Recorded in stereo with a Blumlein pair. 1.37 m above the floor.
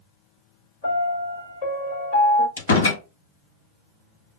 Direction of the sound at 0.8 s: 55° left.